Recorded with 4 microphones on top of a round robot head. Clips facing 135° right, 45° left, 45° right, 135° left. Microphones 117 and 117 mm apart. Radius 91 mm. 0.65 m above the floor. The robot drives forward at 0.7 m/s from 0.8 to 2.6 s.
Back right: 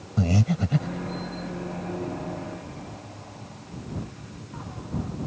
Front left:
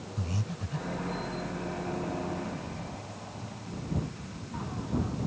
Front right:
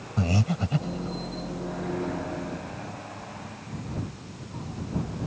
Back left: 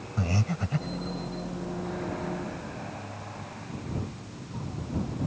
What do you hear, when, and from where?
0.2 s breathing: 115° right; by 1.2 s 120° right